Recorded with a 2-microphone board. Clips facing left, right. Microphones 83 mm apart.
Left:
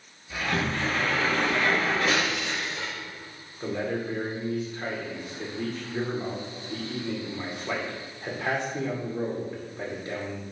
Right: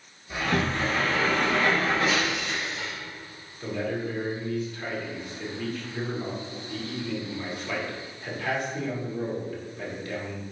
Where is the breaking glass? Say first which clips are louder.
Even; 80° left, 3.5 m.